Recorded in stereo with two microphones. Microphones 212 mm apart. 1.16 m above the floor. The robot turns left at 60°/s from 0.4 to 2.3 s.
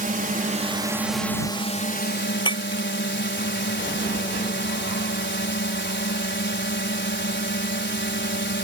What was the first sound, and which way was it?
A drone, 135° right.